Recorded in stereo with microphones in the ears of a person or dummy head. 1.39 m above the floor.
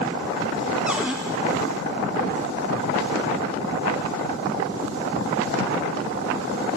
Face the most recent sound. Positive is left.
turn(degrees=-5)  # may be behind; listen again after turning